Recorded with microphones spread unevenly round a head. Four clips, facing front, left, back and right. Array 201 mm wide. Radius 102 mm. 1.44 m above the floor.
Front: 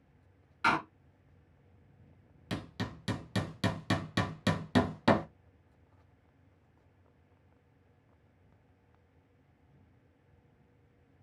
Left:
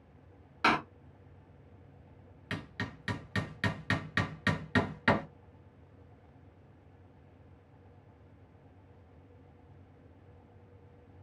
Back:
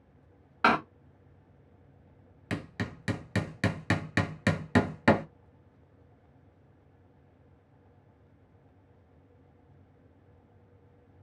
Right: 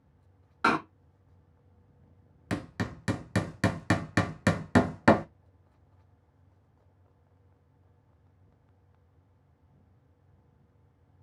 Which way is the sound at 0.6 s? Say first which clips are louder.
Right 2 dB, back 5 dB; 170° right.